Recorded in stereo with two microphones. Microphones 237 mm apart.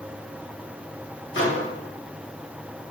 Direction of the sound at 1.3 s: 55° left (ahead or behind).